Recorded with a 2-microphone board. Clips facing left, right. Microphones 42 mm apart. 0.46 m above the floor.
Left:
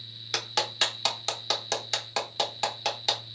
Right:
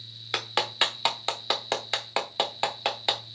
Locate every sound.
0.3 s a clap: 25° right (ahead or behind), 1.0 m